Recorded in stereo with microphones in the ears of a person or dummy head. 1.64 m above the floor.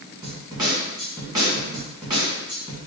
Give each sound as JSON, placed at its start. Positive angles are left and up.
{"t": 0.2, "sound": "a snare drum", "side_deg": -20, "distance_m": 2.0}